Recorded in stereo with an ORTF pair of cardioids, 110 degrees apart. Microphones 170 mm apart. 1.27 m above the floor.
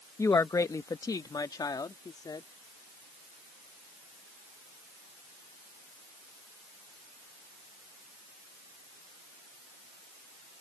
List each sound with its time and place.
0.2 s a woman speaking: 15° left; by 2.5 s 25° left